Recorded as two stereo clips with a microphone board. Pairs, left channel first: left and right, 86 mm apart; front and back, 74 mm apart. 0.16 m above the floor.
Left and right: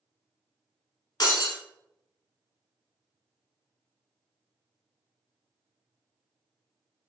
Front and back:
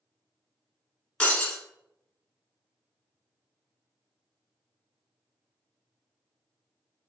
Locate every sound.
1.2 s breaking glass: 70° left, 1.2 m